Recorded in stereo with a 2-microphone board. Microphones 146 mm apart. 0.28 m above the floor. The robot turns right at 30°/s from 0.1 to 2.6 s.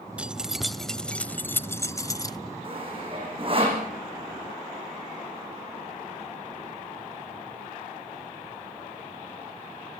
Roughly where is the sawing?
Right.